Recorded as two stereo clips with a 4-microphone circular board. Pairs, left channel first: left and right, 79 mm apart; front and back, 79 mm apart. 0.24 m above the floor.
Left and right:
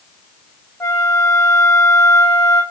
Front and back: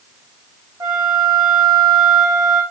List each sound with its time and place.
0.8 s a flute: 140° left, 2.0 m